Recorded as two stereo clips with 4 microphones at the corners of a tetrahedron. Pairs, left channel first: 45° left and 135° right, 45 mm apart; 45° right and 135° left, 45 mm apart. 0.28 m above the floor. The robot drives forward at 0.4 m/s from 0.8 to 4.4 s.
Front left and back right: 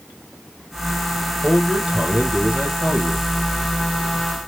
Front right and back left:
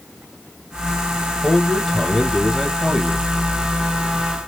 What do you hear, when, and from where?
1.4 s a man speaking: 100° right, 1.1 m; by 3.3 s 155° right, 1.4 m